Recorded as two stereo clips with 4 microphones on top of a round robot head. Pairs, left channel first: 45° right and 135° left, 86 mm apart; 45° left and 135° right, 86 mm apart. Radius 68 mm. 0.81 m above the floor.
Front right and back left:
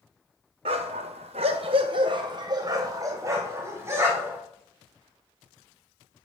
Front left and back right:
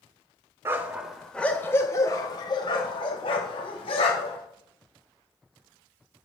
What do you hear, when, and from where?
0.7 s a dog barking: 160° left, 1.1 m; by 4.4 s 70° left, 3 m